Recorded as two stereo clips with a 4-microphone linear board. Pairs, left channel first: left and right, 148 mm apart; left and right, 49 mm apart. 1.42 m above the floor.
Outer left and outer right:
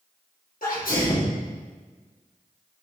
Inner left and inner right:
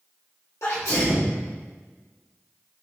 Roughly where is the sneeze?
Left.